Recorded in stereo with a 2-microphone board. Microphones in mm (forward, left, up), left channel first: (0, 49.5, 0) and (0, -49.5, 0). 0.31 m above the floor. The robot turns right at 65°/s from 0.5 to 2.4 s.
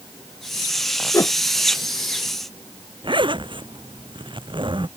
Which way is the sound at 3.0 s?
55° right (ahead or behind).